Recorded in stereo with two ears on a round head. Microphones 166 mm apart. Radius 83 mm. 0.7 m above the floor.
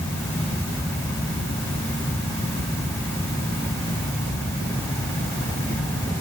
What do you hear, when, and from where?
Only background noise.